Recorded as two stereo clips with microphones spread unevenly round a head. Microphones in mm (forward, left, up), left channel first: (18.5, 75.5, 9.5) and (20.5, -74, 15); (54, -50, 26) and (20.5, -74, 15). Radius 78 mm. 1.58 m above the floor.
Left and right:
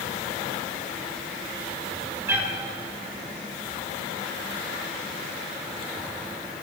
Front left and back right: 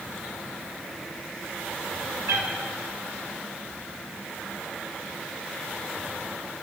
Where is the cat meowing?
160° right, 2 m.